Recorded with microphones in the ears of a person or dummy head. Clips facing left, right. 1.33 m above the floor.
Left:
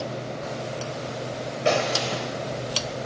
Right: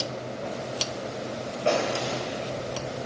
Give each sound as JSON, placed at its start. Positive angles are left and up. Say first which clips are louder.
{"t": 1.6, "sound": "a gunshot", "louder": "left 1 dB", "side_deg": 20, "distance_m": 1.2}